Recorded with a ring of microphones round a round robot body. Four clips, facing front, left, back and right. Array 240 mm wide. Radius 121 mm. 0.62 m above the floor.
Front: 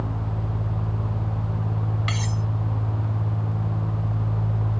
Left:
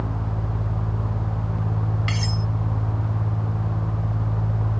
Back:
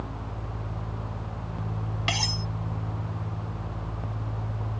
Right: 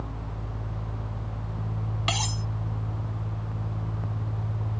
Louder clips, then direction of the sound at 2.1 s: Left 3 dB, front 2 dB; 130° right.